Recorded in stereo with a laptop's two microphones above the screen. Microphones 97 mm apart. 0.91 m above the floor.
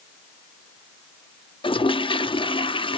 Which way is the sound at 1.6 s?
60° left (ahead or behind).